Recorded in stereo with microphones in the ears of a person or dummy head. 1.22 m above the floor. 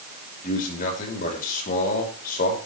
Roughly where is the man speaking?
Left.